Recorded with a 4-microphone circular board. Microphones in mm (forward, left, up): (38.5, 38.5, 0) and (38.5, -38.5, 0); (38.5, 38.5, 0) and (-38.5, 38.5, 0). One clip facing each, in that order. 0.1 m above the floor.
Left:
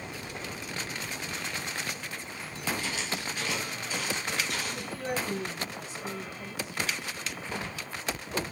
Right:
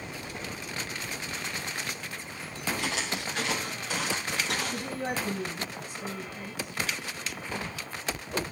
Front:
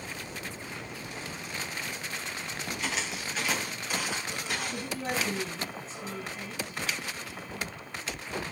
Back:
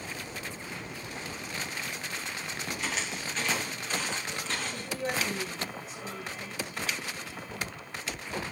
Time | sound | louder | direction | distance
2.8 | footsteps | right 2 dB, front 1 dB | 90° right | 4.5 m
4.7 | a woman speaking | right 1 dB, back 1 dB | 60° right | 5.5 m